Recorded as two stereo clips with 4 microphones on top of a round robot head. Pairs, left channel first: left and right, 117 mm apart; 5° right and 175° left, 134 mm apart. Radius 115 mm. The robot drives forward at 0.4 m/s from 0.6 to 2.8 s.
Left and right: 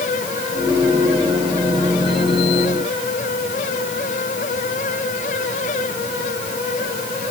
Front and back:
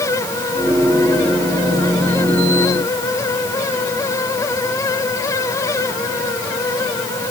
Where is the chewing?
I don't hear chewing.